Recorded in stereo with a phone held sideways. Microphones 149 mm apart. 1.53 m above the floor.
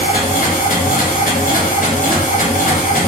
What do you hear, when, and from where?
0.0 s a machine running: 70° left (ahead or behind), 0.9 m